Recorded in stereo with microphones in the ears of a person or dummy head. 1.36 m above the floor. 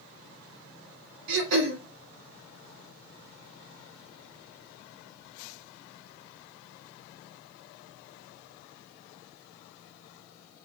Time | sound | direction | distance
1.3 | throat clearing | 75° right (ahead or behind) | 2 m